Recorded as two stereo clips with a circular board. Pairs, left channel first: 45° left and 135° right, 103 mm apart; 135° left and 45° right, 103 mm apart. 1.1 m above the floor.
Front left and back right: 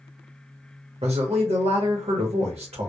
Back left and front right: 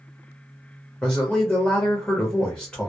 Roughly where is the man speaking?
Behind right.